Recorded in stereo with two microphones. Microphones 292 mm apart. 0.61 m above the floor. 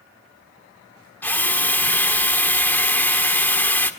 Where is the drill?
5° left (ahead or behind), 1.3 m.